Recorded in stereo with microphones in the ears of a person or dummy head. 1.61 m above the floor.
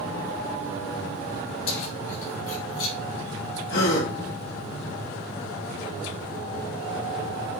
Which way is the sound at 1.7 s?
75° left (ahead or behind).